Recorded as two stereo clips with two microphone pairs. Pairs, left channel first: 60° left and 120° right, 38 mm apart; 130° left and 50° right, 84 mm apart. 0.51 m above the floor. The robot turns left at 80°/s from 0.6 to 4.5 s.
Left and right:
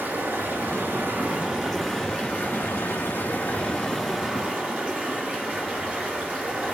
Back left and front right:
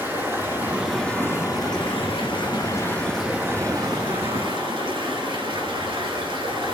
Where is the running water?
115° right, 3.5 m; by 6.8 s 65° right, 3.5 m.